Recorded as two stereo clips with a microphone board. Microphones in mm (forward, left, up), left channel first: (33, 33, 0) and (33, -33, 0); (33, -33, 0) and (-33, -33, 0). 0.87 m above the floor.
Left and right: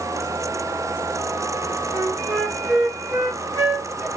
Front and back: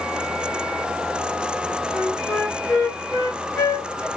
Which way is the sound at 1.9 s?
30° right.